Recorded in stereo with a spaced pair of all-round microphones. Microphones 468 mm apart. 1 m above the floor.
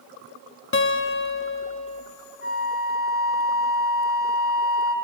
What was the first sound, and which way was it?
A guitar, 30° left (ahead or behind).